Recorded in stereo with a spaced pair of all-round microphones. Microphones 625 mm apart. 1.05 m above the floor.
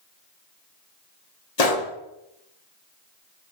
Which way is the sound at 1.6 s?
75° left (ahead or behind).